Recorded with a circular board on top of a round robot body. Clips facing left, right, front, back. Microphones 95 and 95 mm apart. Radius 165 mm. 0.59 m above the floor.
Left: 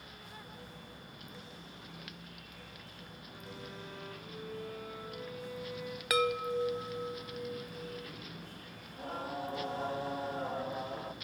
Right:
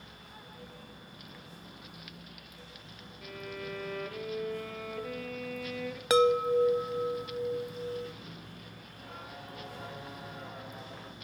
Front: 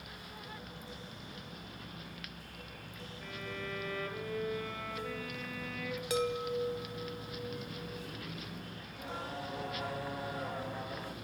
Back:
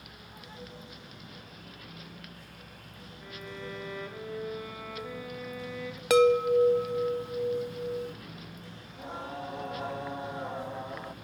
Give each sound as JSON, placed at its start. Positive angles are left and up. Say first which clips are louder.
{"t": 3.2, "sound": "a violin", "louder": "right 9 dB, back 1 dB", "azimuth_deg": -100, "distance_m": 2.5}
{"t": 6.1, "sound": "a chime", "louder": "right 8 dB, back 13 dB", "azimuth_deg": -155, "distance_m": 0.6}
{"t": 8.9, "sound": "singing", "louder": "left 8 dB, back 3 dB", "azimuth_deg": 125, "distance_m": 1.1}